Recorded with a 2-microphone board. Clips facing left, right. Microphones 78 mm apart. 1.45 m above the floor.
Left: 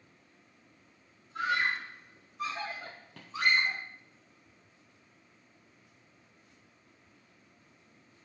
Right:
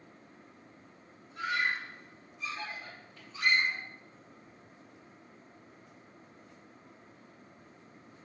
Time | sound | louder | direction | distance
1.4 | a scream | left 2 dB | 70° left (ahead or behind) | 1.3 m